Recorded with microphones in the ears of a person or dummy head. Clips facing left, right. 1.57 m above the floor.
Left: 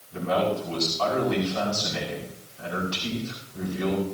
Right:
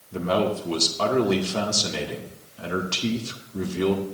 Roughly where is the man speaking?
Right.